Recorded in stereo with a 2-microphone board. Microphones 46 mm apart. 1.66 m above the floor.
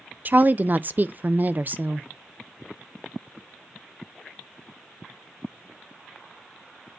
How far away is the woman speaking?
About 0.6 m.